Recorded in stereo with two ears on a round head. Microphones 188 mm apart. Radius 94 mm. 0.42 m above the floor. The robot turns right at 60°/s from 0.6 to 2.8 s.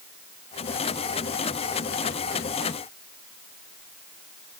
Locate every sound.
Only background noise.